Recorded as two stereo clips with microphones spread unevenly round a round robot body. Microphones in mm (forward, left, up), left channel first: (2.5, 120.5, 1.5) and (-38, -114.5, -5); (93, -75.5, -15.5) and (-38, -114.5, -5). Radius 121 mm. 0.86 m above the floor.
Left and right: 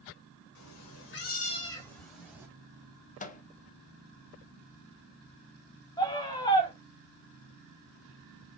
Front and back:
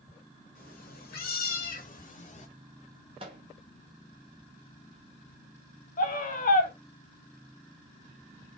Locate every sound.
0.6 s a cat meowing: 70° left, 1.3 m; by 2.5 s 20° right, 2.0 m
3.2 s a microwave: 135° left, 0.7 m
6.0 s a scream: 5° left, 1.7 m